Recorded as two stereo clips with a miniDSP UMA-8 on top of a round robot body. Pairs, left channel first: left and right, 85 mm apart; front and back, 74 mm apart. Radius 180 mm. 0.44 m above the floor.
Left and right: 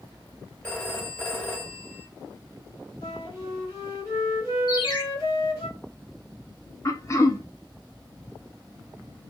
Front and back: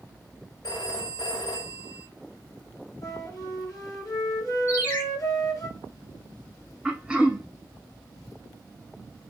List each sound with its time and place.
0.6 s a phone ringing: 25° left, 2 m
3.0 s a flute: 45° left, 3.5 m
4.7 s a ringtone: 65° left, 2 m
6.8 s throat clearing: 110° left, 1.3 m